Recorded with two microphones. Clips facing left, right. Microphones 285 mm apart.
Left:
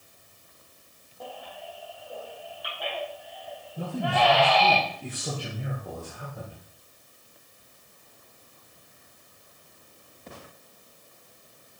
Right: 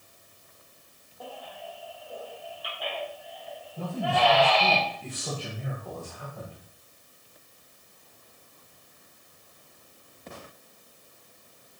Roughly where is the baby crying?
Centre.